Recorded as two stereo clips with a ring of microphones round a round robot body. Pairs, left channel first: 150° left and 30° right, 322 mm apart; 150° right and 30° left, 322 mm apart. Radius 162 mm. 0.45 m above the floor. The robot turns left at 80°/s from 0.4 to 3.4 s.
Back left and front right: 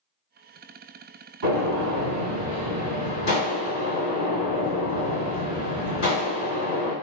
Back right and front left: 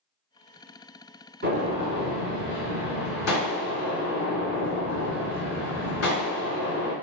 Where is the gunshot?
20° right, 1.8 m; by 6.9 s straight behind, 1.8 m.